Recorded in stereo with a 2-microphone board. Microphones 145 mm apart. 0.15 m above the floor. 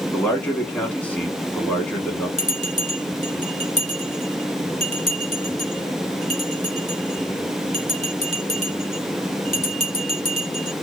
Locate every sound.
0.1 s a man speaking: 10° left (ahead or behind), 1.2 m
2.4 s a bell: 45° right (ahead or behind), 1.5 m